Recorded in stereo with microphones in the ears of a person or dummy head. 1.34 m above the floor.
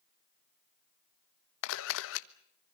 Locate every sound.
1.6 s a camera shutter: 75° left (ahead or behind), 1.1 m